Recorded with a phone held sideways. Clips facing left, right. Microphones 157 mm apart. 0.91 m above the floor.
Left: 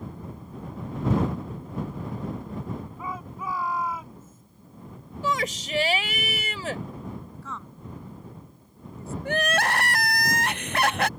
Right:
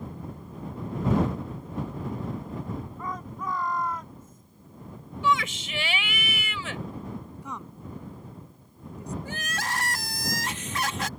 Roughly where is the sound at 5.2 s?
Left.